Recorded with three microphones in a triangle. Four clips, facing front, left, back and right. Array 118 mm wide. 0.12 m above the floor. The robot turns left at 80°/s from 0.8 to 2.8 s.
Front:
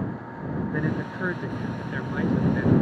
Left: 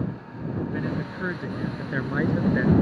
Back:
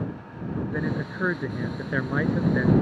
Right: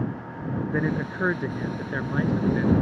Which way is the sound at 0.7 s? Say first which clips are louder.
Right 3 dB, front 2 dB; 85° right.